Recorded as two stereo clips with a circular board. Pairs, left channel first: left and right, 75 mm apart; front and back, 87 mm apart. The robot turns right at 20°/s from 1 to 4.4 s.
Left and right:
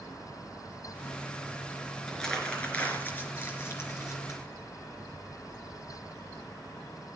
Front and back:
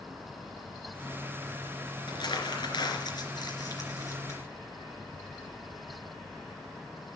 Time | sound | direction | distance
2.1 | crumpling | 5° left | 3.5 m